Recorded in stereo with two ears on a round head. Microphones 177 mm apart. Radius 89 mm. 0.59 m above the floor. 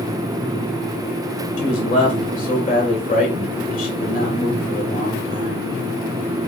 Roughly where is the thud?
No thud in this recording.